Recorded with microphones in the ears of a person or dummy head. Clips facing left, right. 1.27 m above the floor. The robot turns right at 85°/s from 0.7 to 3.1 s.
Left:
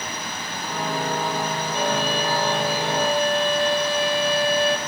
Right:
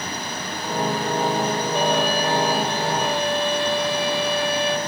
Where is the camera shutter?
No camera shutter in this recording.